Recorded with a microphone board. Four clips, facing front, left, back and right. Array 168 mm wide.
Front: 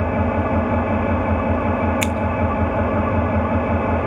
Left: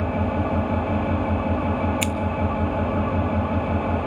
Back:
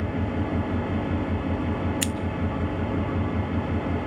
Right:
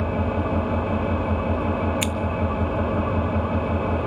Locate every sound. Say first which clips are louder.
0.0 s an engine running: left 1 dB, front 8 dB; 20° right, 1.7 m
2.0 s scissors: left 1 dB, front 7 dB; 15° right, 0.6 m